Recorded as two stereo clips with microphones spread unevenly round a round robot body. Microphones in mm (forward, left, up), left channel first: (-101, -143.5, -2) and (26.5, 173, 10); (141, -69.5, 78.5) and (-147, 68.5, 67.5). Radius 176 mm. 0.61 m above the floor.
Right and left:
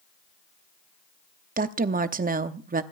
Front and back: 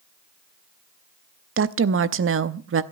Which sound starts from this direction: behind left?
A woman speaking, at 1.6 s.